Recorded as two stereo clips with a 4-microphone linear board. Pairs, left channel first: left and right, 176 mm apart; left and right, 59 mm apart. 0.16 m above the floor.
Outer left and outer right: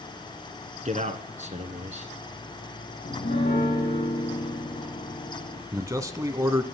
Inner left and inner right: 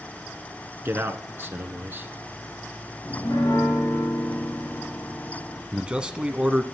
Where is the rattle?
I don't hear a rattle.